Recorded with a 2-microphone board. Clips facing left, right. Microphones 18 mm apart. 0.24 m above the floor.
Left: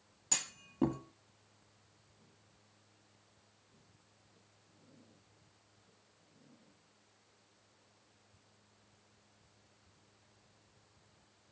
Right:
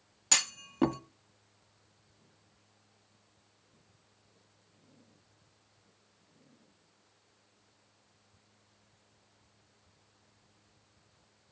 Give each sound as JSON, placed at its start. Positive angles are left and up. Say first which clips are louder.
{"t": 0.3, "sound": "a clunk", "louder": "right 10 dB", "side_deg": -40, "distance_m": 0.5}